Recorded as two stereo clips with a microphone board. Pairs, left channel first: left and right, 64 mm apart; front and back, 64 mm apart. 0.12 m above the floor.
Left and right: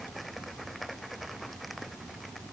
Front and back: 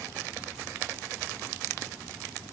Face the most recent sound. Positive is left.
No sound to turn to.